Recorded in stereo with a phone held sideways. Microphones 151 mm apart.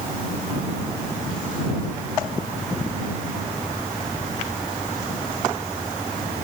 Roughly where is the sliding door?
No sliding door in this recording.